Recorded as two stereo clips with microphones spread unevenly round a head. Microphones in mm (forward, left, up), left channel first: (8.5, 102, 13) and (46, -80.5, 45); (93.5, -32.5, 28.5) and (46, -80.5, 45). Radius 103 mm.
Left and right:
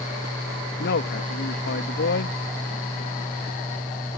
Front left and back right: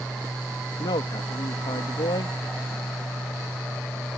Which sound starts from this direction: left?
A man speaking, at 0.8 s.